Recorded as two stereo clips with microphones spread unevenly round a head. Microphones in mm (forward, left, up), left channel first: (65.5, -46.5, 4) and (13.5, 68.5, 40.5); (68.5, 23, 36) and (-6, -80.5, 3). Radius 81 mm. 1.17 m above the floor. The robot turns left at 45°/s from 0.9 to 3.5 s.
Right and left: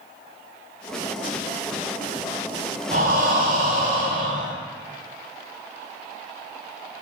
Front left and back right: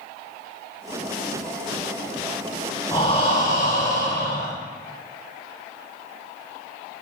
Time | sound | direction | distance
2.9 | breathing | 120° left | 3 m